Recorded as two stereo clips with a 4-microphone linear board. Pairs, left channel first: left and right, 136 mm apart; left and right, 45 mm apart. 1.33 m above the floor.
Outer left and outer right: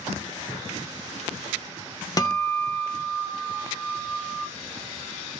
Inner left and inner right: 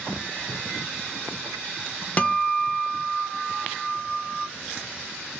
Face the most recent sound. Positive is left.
turn(degrees=25)  # may be behind; listen again after turning